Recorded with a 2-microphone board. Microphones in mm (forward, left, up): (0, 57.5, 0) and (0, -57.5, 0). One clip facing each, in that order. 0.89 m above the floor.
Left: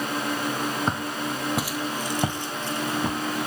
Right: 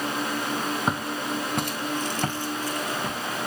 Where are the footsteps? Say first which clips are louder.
Even; 5° right (ahead or behind), 1.3 m; by 3.2 s 30° left (ahead or behind), 1.0 m.